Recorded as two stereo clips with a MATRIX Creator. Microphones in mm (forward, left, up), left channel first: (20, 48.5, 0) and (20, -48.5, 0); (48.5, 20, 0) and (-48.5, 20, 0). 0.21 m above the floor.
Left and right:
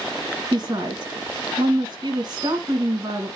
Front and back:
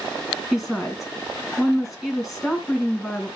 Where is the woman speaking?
90° right, 2 m.